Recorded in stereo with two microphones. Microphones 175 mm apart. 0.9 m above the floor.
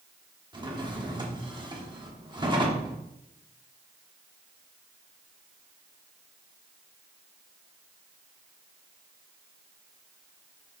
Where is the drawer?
25° right (ahead or behind), 1.2 m.